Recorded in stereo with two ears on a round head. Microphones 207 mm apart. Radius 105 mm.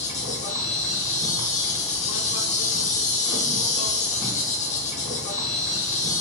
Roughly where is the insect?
Left.